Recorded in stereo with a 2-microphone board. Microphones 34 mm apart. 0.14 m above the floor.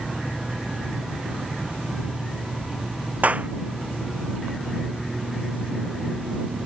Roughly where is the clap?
Right.